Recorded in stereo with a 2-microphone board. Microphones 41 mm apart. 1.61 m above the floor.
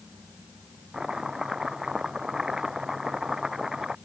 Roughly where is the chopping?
Centre.